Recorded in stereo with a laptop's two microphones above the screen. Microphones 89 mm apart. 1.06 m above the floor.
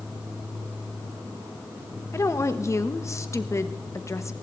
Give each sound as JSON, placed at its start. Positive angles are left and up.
{"t": 2.1, "sound": "a woman speaking", "side_deg": 35, "distance_m": 0.8}